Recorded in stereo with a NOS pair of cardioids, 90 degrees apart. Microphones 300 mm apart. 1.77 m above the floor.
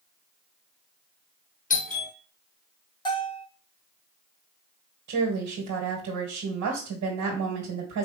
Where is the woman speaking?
70° right, 1.9 m.